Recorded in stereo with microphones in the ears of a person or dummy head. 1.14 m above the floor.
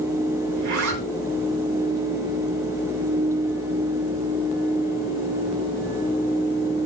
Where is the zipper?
65° right (ahead or behind), 2.5 m.